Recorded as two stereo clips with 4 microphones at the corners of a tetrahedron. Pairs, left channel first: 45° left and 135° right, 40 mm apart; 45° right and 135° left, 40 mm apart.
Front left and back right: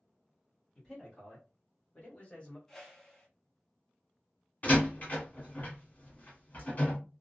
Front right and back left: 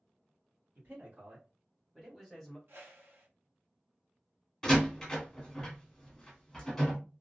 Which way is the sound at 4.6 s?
25° left.